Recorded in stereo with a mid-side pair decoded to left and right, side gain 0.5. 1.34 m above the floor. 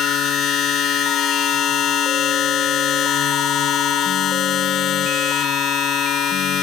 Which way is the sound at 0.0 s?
65° left.